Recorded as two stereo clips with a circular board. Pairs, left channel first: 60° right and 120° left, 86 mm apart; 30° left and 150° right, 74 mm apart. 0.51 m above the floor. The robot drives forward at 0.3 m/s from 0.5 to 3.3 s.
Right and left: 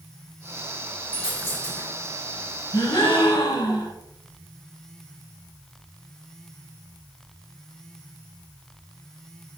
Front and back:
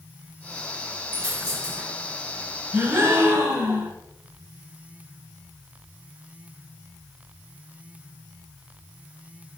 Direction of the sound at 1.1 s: 120° right.